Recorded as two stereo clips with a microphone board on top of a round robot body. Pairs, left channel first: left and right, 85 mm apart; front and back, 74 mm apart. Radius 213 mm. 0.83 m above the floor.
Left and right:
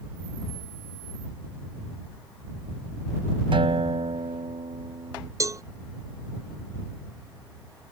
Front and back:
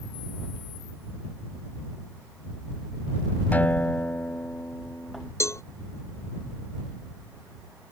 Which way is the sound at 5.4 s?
45° right.